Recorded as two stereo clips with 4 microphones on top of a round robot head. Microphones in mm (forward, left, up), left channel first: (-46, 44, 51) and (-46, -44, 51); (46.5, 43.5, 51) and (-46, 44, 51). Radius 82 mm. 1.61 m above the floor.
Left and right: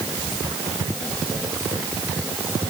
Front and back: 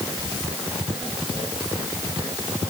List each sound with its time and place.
Only background noise.